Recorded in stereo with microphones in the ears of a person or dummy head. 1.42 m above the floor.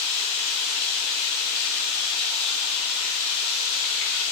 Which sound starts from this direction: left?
Running water, at 0.0 s.